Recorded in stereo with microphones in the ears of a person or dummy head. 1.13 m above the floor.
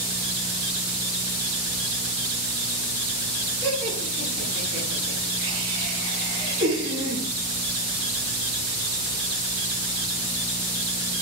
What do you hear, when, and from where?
3.6 s laughter: 65° right (ahead or behind), 9.5 m